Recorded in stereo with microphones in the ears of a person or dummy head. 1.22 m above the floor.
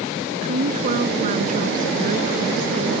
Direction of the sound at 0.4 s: 45° right (ahead or behind).